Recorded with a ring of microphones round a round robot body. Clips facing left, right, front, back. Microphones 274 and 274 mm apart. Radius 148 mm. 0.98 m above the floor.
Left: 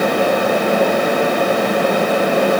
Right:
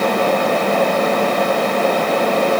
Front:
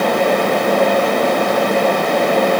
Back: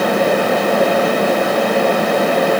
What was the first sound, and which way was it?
Only background noise.